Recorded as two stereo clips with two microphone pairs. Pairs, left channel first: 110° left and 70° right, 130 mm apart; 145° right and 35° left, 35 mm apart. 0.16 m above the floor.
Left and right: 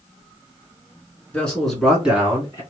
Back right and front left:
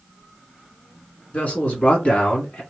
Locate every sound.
1.3 s a man speaking: 170° right, 1.8 m; by 2.6 s 125° right, 1.5 m